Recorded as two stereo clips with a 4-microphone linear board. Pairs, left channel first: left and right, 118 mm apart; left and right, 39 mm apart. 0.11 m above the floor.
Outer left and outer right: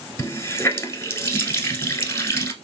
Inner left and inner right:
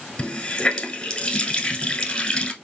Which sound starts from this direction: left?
A running tap, at 0.2 s.